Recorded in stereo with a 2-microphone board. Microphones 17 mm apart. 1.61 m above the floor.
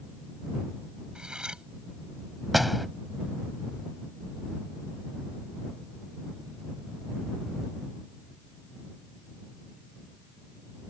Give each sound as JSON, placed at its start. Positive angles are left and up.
{"t": 1.1, "sound": "cutlery clinking", "side_deg": -60}
{"t": 2.5, "sound": "a door slam", "side_deg": 0}